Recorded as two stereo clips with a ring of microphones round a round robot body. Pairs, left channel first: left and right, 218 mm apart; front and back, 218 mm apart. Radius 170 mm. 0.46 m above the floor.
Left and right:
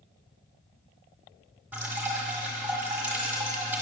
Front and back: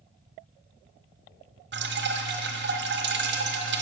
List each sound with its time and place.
1.7 s dripping: 170° right, 1.5 m